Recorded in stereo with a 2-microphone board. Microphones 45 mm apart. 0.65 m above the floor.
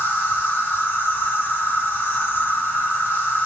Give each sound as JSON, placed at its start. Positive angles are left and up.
{"t": 0.0, "sound": "an insect", "side_deg": 50, "distance_m": 1.5}